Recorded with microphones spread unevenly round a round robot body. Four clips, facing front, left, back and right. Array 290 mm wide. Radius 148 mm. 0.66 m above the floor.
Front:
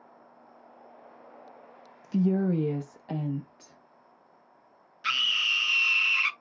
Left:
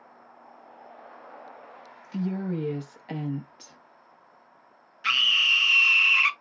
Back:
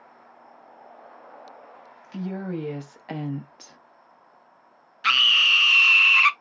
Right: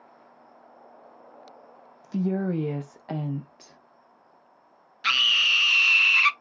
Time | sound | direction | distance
2.0 | a woman speaking | 45° right | 0.8 m
5.0 | a scream | 165° right | 0.7 m